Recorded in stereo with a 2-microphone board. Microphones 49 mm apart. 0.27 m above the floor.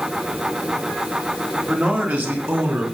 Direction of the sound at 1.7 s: 30° right (ahead or behind).